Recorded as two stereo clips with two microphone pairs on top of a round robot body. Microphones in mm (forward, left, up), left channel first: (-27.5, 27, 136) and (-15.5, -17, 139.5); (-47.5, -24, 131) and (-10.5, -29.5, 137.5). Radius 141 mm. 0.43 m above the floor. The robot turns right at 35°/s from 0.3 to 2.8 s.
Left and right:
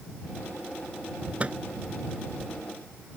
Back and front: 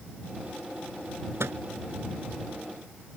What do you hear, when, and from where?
1.4 s a microwave: 15° right; by 1.6 s 5° right